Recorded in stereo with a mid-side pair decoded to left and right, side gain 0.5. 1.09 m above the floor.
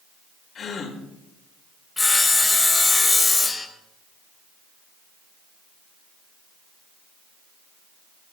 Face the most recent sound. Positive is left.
turn(degrees=20)